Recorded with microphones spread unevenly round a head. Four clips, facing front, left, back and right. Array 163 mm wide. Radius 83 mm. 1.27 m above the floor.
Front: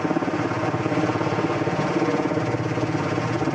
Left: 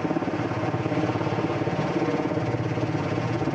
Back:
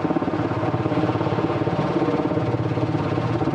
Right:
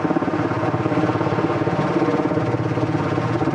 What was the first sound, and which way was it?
A helicopter, 90° right.